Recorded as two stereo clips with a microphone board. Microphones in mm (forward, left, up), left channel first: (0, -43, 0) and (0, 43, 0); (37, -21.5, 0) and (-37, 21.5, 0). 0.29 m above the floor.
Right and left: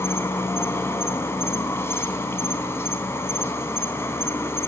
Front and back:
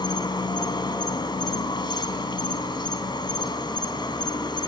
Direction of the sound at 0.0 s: 35° right.